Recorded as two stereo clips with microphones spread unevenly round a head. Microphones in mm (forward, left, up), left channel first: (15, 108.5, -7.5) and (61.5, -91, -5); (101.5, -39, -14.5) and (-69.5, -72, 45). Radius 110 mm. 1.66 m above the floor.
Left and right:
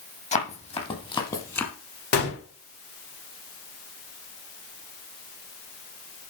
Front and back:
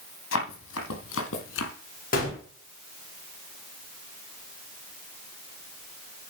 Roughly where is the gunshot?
Left.